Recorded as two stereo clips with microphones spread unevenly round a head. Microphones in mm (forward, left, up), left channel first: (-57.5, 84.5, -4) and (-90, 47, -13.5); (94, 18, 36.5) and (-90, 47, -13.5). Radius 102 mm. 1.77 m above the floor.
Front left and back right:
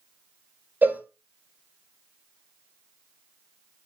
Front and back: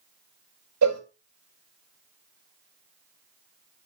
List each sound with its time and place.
0.8 s a cowbell: 170° left, 2.5 m